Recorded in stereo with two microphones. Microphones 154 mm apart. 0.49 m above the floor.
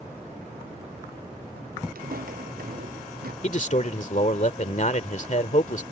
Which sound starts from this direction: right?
Footsteps, at 1.9 s.